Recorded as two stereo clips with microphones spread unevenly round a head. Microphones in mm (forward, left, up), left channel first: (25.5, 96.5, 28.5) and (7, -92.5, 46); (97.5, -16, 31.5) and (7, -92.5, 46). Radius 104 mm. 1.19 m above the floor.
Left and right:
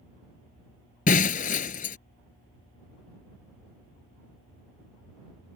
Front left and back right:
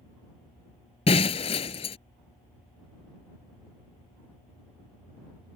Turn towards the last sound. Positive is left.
turn(degrees=60)